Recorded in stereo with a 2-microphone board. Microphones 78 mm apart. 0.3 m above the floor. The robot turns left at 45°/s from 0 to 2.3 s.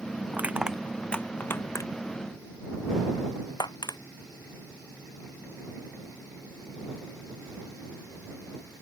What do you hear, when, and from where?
0.3 s crushing: 25° right (ahead or behind); by 4.0 s 65° left (ahead or behind)